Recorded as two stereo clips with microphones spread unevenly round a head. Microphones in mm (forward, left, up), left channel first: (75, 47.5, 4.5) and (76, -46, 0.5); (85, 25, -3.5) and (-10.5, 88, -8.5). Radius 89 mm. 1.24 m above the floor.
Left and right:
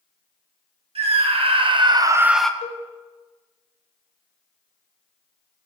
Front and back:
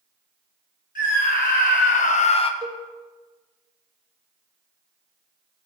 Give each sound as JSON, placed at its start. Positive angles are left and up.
{"t": 0.9, "sound": "a scream", "azimuth_deg": -80, "distance_m": 1.8}
{"t": 2.6, "sound": "a cowbell", "azimuth_deg": 90, "distance_m": 1.2}